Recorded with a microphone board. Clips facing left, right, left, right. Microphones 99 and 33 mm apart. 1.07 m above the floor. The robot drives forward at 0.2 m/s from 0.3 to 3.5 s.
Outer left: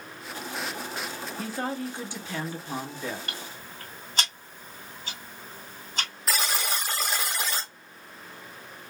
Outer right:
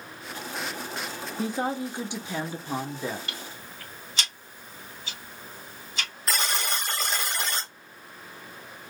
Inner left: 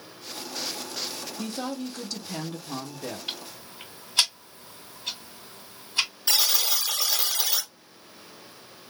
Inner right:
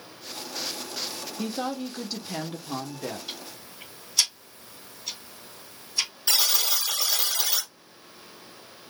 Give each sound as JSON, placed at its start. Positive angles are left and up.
{"t": 1.4, "sound": "a woman speaking", "side_deg": -15, "distance_m": 0.6}
{"t": 3.3, "sound": "ticking", "side_deg": 45, "distance_m": 1.9}
{"t": 6.3, "sound": "a buzzer", "side_deg": 5, "distance_m": 0.9}